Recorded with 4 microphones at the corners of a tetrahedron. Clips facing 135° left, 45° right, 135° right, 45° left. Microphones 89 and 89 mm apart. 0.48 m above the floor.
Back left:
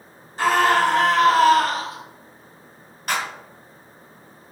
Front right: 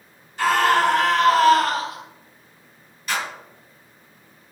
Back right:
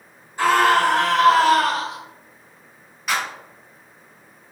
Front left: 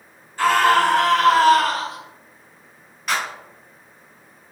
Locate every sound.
0.4 s a scream: 160° left, 1.5 m
3.1 s a clap: 135° left, 1.5 m